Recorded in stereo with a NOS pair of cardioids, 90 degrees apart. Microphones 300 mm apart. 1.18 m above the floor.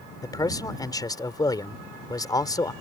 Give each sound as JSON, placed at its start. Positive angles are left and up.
{"t": 0.2, "sound": "a man speaking", "azimuth_deg": 10}